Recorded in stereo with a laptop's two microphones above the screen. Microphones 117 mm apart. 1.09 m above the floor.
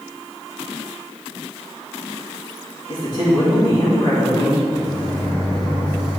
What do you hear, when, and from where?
2.9 s a man speaking: 35° left (ahead or behind), 2 m; by 4.6 s 40° left (ahead or behind), 3.5 m
4.7 s a microwave: 40° left (ahead or behind), 1.8 m